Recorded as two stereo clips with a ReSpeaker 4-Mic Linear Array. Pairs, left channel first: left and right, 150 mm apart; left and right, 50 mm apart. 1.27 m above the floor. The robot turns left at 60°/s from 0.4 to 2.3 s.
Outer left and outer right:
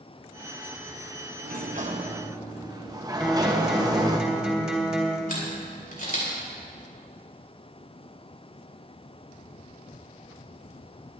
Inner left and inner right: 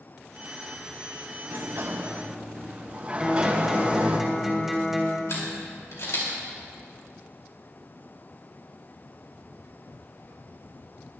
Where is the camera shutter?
65° left (ahead or behind), 4 m.